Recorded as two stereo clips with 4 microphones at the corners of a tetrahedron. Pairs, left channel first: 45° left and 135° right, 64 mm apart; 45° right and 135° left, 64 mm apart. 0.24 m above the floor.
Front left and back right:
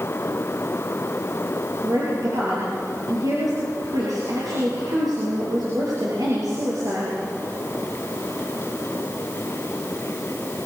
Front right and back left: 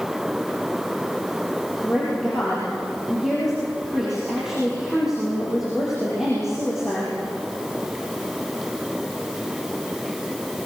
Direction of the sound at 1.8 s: 140° right.